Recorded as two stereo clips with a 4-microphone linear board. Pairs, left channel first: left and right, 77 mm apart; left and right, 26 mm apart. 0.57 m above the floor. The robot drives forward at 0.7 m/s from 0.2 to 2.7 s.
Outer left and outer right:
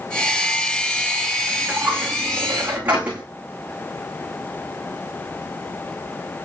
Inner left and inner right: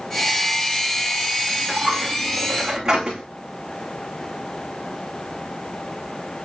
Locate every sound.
1.5 s a dropped coin: 25° right (ahead or behind), 8.5 m